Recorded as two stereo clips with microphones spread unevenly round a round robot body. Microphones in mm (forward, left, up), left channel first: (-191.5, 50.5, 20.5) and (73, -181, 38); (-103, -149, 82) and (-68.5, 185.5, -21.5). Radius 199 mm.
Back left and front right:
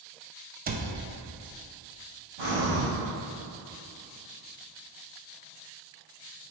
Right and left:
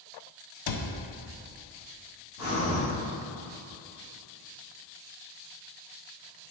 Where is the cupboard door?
105° right, 0.5 m.